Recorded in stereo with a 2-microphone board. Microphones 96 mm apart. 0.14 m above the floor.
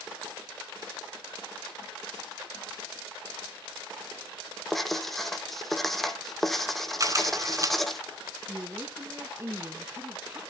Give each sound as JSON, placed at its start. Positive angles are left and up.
{"t": 4.7, "sound": "writing", "side_deg": 0, "distance_m": 1.0}
{"t": 7.0, "sound": "a camera shutter", "side_deg": -35, "distance_m": 1.1}
{"t": 8.5, "sound": "a woman speaking", "side_deg": -25, "distance_m": 1.1}